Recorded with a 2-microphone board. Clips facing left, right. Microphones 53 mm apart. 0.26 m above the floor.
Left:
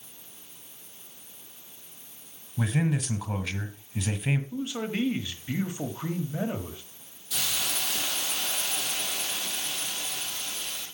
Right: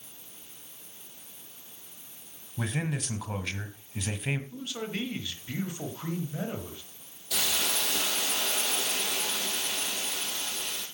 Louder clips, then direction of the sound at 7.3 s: Right 2 dB; 75° right (ahead or behind).